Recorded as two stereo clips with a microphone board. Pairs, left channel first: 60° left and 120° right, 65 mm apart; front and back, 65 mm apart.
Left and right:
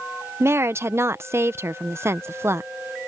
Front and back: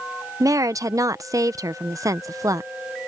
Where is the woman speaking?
165° right.